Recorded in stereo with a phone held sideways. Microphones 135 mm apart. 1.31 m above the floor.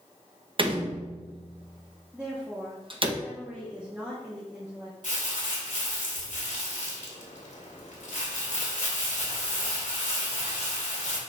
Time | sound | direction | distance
0.6 | a door slam | 40° right (ahead or behind) | 1.0 m
2.1 | a woman speaking | 10° right (ahead or behind) | 1.4 m
5.0 | crumpling | 70° left (ahead or behind) | 2 m